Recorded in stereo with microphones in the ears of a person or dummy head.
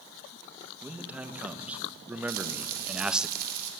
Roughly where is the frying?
Right.